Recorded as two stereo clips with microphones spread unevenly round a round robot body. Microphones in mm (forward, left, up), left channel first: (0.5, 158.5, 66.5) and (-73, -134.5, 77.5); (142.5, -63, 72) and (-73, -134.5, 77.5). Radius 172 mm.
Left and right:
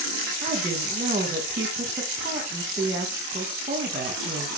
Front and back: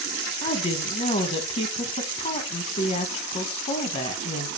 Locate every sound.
0.4 s a woman speaking: 30° right, 0.9 m